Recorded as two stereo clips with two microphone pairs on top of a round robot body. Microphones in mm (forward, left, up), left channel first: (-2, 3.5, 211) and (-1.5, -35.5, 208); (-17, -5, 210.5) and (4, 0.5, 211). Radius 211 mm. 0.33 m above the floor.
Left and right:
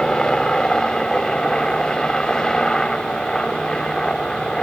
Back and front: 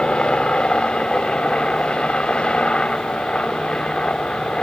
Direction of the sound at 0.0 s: 165° left.